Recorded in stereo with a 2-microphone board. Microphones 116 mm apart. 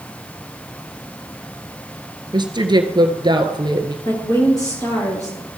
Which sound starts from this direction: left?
A woman speaking, at 4.0 s.